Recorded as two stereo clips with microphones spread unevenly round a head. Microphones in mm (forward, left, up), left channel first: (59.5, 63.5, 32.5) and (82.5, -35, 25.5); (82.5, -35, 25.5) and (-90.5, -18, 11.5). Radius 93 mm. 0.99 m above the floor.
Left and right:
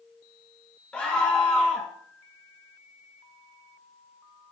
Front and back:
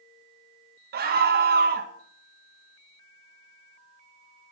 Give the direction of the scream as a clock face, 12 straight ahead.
6 o'clock.